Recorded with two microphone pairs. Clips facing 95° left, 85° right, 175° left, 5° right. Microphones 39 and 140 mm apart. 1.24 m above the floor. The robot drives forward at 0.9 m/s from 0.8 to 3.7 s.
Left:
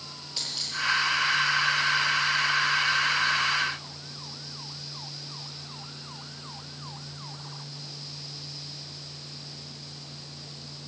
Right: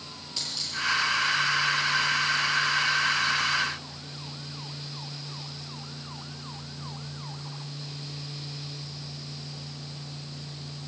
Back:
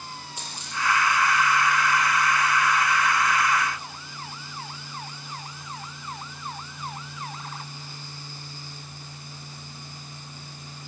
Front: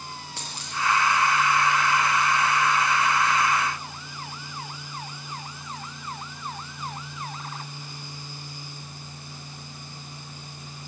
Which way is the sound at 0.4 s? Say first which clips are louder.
Even, front 1 dB; 10° left.